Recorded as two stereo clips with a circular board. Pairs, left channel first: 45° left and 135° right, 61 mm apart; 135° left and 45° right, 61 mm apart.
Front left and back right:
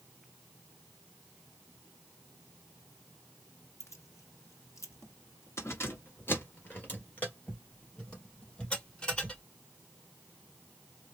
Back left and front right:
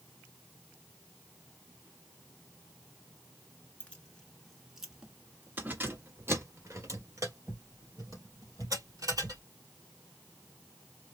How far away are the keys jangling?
About 1.4 m.